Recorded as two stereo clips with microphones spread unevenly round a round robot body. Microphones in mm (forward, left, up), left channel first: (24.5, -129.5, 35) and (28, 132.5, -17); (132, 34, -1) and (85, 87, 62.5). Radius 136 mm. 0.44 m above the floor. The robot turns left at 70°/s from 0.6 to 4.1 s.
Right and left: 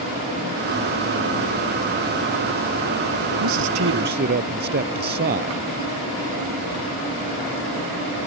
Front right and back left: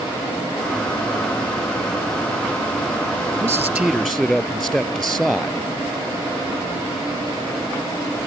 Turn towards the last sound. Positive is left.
turn(degrees=40)